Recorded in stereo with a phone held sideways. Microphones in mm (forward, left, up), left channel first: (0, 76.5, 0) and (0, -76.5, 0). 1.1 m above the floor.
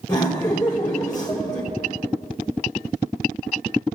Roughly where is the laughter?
Left.